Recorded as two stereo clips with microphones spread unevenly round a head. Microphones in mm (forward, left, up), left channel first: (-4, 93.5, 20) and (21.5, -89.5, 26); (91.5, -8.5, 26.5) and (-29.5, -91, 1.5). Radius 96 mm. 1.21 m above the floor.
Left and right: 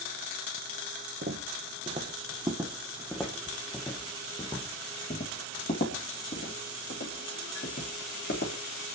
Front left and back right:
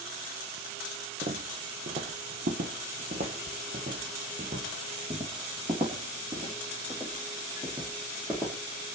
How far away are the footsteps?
About 1.7 m.